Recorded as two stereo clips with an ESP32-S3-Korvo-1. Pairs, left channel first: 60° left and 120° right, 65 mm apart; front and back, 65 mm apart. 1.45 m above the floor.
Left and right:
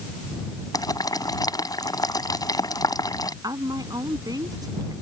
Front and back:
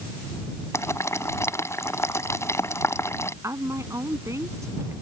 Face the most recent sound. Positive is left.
turn(degrees=-140)